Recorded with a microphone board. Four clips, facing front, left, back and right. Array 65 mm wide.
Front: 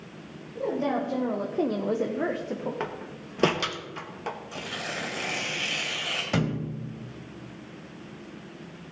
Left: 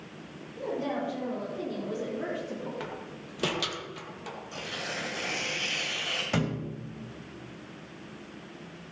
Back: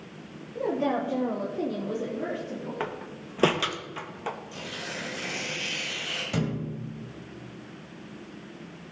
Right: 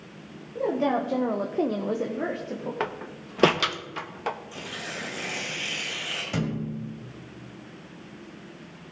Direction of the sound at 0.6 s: 120° right.